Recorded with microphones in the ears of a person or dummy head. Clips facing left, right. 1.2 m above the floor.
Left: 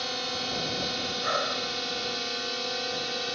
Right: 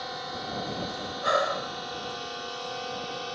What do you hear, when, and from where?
0.0 s a drone: 40° left (ahead or behind); by 3.4 s 30° left (ahead or behind)
1.2 s breathing: 50° right (ahead or behind)